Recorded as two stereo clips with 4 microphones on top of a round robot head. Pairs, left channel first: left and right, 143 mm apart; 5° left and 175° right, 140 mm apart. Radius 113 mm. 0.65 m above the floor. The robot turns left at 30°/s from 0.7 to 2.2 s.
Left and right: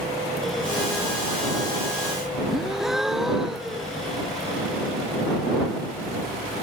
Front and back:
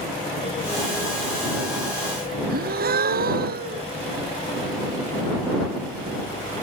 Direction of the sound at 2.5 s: Straight behind.